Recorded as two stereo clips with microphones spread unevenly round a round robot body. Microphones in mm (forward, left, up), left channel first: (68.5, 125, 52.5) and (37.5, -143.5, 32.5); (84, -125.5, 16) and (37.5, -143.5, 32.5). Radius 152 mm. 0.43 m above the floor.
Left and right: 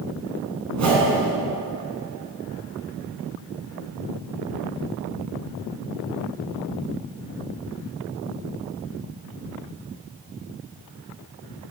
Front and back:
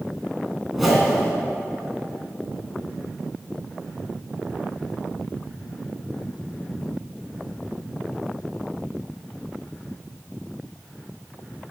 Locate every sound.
0.7 s a whoosh: 70° right, 2.5 m